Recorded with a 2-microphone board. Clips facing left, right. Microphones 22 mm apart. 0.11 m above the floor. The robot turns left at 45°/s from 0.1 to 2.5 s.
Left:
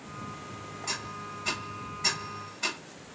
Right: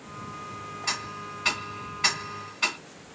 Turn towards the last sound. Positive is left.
turn(degrees=-70)  # may be behind; listen again after turning